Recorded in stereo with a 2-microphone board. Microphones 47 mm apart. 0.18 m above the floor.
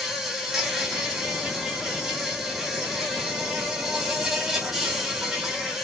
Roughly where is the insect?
Centre.